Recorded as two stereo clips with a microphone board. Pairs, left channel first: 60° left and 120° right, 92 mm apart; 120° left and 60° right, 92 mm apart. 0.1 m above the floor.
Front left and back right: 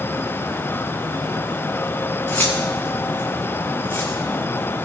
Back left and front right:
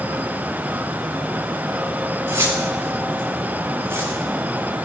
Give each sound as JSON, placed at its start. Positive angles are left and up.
{"t": 2.3, "sound": "keys jangling", "azimuth_deg": -10, "distance_m": 5.5}